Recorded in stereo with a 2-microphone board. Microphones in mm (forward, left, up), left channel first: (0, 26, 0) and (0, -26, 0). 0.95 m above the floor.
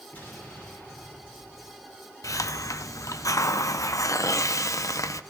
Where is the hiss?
80° left, 0.6 m.